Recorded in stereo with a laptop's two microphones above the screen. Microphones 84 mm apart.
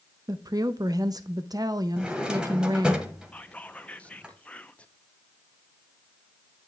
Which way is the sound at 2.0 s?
10° right (ahead or behind).